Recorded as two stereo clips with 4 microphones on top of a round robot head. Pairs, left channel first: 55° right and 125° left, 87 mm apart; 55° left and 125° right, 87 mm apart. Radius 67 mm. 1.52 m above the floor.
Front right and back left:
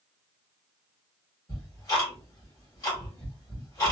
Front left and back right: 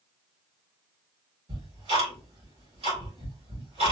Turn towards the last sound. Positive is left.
turn(degrees=-115)